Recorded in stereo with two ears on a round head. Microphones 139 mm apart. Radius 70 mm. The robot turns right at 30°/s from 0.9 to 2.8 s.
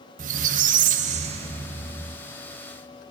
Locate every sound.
0.2 s a squeak: 55° right, 0.5 m; by 2.2 s 15° right, 0.5 m